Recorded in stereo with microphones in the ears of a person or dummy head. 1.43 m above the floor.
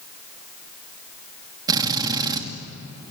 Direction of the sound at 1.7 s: 20° right (ahead or behind).